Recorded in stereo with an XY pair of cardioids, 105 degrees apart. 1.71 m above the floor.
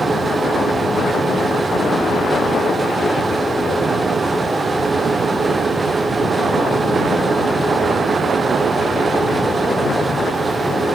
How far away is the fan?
About 0.7 m.